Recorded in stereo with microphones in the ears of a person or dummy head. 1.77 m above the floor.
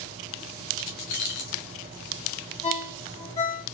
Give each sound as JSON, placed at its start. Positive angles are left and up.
{"t": 0.8, "sound": "keys jangling", "side_deg": 45, "distance_m": 1.2}
{"t": 2.6, "sound": "a ringtone", "side_deg": 15, "distance_m": 0.7}